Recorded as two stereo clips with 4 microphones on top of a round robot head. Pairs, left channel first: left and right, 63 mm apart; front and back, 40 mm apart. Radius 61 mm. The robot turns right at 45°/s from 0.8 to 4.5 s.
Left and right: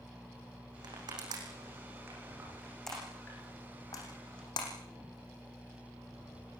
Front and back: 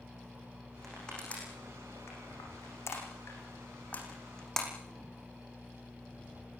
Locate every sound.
0.8 s crushing: 90° right, 9 m; by 4.7 s 75° left, 9 m